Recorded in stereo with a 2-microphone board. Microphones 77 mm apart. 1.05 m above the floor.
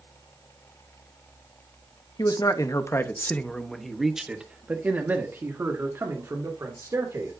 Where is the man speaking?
60° left (ahead or behind), 1.1 m; by 7.3 s 40° right (ahead or behind), 3 m.